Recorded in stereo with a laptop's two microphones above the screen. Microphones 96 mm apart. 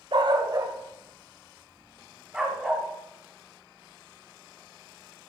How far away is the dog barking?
About 1.4 m.